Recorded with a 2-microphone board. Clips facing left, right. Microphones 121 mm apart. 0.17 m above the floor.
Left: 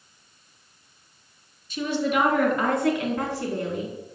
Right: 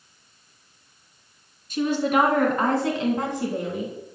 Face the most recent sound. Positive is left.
turn(degrees=-5)  # may be behind; listen again after turning